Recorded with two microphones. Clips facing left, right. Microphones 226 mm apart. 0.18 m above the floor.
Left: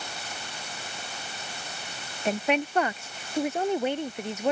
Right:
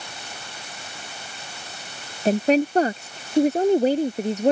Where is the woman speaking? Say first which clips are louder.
Right 8 dB; 35° right (ahead or behind).